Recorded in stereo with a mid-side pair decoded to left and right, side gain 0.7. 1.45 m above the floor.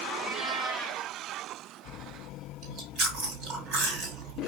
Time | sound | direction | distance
0.1 | a cat meowing | 40° right | 2.5 m
2.6 | chewing | 60° right | 6 m